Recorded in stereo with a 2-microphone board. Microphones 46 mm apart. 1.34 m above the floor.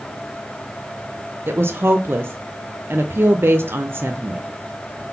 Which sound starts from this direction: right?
A woman speaking, at 1.5 s.